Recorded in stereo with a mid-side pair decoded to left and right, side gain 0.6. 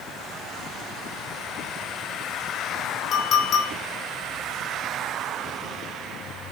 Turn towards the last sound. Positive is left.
turn(degrees=55)